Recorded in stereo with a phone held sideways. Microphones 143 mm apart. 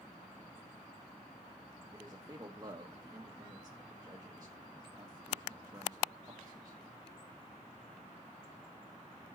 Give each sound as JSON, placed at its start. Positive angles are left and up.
{"t": 1.9, "sound": "a man speaking", "side_deg": -25, "distance_m": 1.1}